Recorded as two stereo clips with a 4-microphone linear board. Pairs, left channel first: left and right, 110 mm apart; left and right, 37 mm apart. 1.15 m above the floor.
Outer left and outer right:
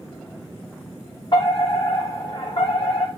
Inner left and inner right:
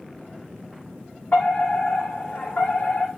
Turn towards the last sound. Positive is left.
turn(degrees=40)  # may be behind; listen again after turning